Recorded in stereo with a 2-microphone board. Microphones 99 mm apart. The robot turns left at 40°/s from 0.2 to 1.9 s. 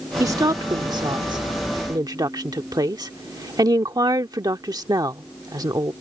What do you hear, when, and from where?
0.2 s a woman speaking: 35° right (ahead or behind); by 5.9 s 40° right (ahead or behind)